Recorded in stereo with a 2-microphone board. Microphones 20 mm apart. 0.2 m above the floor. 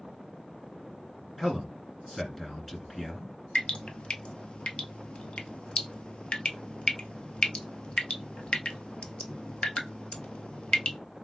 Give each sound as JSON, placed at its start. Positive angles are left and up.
{"t": 1.4, "sound": "a man speaking", "side_deg": 10, "distance_m": 1.9}
{"t": 3.5, "sound": "dripping", "side_deg": 65, "distance_m": 0.6}